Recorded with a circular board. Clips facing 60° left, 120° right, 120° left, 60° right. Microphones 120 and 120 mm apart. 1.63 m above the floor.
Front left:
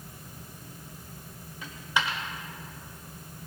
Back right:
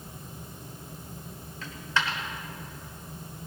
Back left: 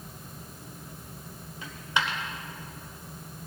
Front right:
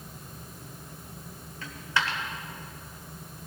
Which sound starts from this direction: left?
A dropped coin, at 1.6 s.